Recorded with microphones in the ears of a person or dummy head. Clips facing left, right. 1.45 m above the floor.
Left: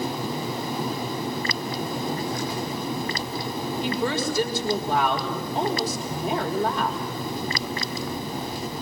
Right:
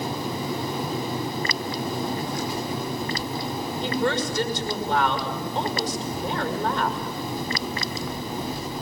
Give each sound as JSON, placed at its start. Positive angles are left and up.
{"t": 3.8, "sound": "a woman speaking", "side_deg": 5, "distance_m": 5.5}